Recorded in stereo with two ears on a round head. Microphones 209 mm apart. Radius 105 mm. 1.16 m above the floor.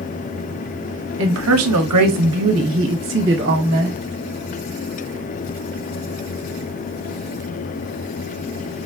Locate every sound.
1.2 s a woman speaking: 55° right (ahead or behind), 0.9 m; by 4.0 s 45° right (ahead or behind), 1.4 m